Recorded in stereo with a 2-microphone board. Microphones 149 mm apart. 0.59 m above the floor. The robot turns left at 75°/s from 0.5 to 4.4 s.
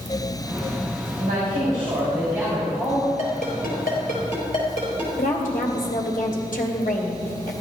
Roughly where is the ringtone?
Left.